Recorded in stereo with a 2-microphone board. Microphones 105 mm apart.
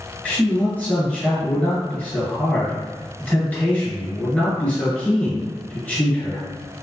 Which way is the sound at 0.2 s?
15° left (ahead or behind).